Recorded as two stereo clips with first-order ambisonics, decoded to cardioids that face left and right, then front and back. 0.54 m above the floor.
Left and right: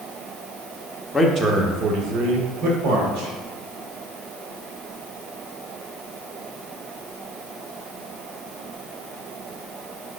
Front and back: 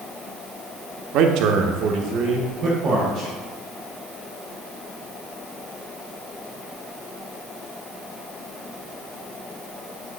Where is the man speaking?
165° left, 0.9 m; by 3.3 s 120° right, 2.5 m.